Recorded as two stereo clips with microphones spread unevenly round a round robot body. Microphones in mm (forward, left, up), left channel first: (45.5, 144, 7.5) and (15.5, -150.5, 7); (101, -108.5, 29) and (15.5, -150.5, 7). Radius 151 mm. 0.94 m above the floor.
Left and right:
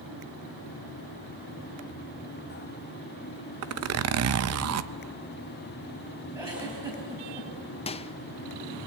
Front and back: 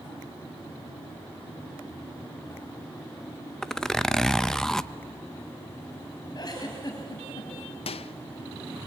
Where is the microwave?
15° left, 0.5 m.